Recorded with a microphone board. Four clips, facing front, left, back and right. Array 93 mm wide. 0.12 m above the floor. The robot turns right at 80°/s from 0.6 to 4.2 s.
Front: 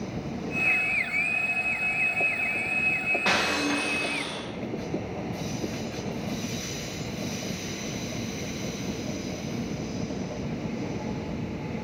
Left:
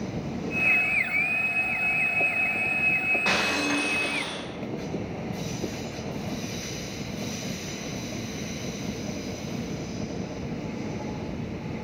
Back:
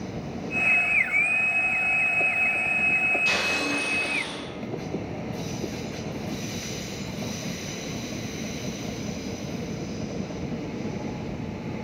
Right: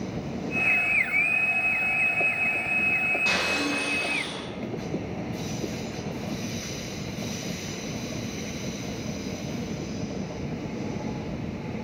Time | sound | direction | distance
3.2 | breaking glass | 25° left | 4 m